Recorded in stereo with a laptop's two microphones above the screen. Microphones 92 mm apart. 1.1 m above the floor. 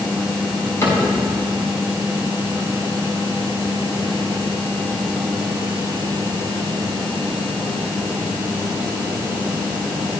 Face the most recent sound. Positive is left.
turn(degrees=35)  # may be behind; listen again after turning